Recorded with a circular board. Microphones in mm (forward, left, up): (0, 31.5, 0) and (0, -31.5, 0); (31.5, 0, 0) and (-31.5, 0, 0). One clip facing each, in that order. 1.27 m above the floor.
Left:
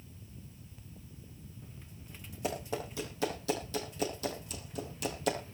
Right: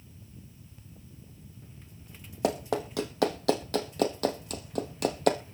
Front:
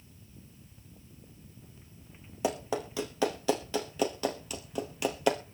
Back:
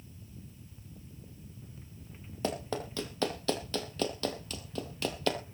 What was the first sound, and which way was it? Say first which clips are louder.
Running footsteps: right 7 dB, front 3 dB; 80° right.